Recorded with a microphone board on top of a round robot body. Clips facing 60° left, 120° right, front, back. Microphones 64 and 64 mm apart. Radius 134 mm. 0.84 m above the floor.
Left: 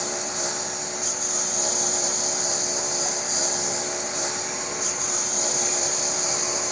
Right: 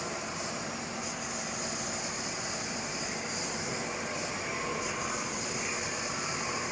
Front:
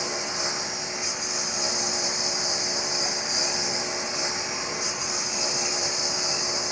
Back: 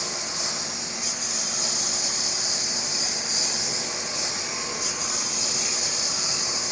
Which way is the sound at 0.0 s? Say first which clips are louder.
Left 6 dB, front 3 dB; 60° left.